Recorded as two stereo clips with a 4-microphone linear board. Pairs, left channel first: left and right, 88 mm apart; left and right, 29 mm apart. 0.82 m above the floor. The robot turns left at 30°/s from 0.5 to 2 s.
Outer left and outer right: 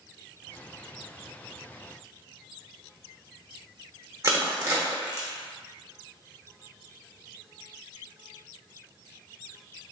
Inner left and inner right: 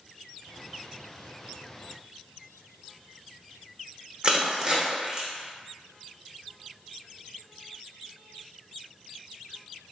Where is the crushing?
35° right (ahead or behind), 1.0 m.